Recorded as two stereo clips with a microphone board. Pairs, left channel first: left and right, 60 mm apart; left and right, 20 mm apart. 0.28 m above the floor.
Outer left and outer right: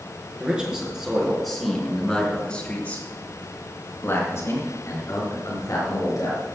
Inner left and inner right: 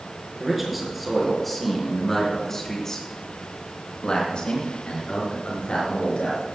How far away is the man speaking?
About 4.5 m.